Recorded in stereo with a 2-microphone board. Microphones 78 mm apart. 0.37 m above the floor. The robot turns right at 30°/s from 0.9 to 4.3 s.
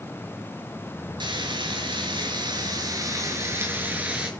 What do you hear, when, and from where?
1.2 s frying: 105° right, 7 m; by 4.3 s 10° right, 7 m